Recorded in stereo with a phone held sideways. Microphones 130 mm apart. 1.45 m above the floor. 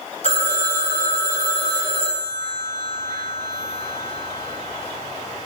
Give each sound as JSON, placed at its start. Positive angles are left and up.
{"t": 0.2, "sound": "a phone ringing", "side_deg": -60, "distance_m": 4.5}